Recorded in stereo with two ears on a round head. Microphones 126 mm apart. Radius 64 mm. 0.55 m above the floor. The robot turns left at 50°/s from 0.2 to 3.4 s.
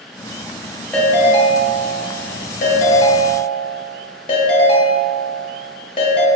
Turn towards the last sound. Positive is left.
turn(degrees=45)